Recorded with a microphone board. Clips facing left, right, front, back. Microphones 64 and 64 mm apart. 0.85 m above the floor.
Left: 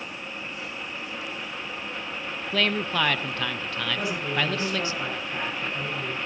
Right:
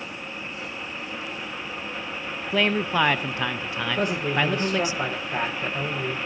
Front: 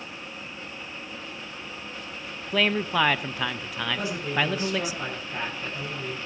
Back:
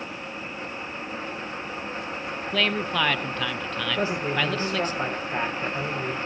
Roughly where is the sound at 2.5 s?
Ahead right.